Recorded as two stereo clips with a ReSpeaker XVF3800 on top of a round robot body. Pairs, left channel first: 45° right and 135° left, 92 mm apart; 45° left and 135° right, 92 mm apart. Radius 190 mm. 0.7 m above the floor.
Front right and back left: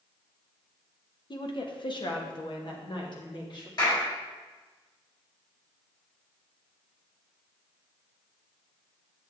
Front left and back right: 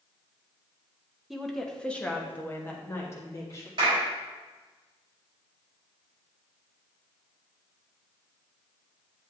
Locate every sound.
1.3 s a woman speaking: 50° right, 1.4 m; by 3.7 s 10° right, 2.5 m
3.8 s a clap: 95° right, 4 m